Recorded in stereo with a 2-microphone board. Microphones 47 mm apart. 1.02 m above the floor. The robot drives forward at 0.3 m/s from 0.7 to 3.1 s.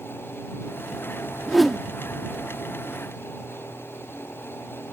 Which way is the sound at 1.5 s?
Centre (ahead or behind).